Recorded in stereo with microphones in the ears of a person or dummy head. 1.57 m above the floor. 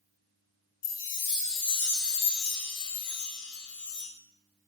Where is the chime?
70° left (ahead or behind), 0.6 m.